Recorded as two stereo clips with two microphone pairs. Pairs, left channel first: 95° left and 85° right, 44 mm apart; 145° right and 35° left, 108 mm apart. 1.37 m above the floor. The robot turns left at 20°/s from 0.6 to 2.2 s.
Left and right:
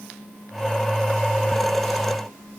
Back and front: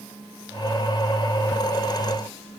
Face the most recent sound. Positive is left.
No sound to turn to.